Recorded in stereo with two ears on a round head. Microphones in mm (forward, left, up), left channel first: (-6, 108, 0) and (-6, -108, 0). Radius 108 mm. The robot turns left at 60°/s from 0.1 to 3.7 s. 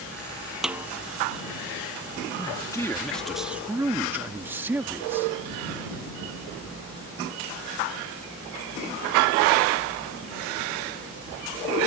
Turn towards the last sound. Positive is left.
turn(degrees=-10)  # may be behind; listen again after turning